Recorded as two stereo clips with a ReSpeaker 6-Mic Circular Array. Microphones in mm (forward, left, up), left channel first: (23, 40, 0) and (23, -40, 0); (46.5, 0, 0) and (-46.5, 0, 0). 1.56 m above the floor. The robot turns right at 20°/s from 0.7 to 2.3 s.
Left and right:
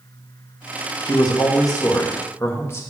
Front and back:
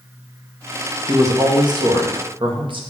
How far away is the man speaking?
About 1.5 m.